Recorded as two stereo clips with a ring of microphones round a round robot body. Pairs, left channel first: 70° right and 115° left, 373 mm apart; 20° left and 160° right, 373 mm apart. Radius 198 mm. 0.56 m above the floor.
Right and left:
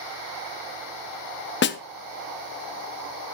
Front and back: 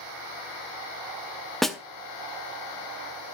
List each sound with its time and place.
1.6 s a snare drum: 65° right, 0.6 m